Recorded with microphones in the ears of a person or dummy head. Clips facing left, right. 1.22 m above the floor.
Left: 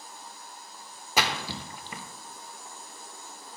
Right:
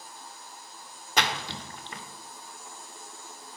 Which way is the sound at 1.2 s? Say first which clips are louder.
Left 1 dB; 10° left (ahead or behind).